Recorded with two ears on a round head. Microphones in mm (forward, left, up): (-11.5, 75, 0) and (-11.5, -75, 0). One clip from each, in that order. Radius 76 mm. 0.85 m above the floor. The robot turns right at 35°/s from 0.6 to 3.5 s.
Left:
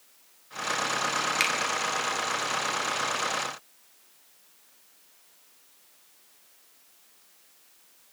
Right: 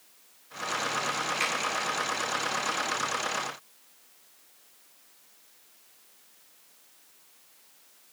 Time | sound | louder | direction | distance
1.4 | a finger snap | left 3 dB | 75° left (ahead or behind) | 2 m